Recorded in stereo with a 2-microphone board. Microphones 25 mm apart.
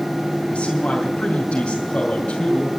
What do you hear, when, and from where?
0.5 s a man speaking: 50° left (ahead or behind), 2.5 m